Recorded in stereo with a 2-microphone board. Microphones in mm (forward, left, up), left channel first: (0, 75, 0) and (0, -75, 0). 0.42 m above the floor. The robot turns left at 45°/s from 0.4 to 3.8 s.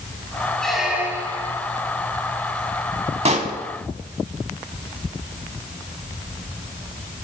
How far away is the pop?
About 0.7 m.